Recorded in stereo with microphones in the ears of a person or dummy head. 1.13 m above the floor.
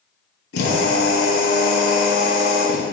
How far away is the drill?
About 5 m.